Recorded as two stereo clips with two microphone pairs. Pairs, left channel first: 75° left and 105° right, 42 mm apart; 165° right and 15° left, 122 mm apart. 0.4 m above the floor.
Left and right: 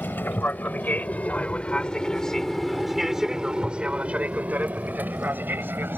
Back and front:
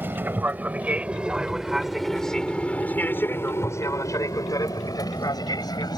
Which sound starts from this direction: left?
An aircraft, at 0.0 s.